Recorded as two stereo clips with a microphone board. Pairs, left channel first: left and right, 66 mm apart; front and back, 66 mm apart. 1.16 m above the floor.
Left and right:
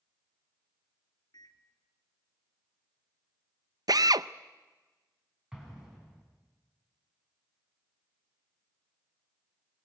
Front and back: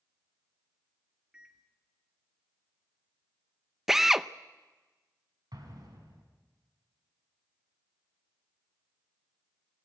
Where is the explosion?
170° right, 6.5 m.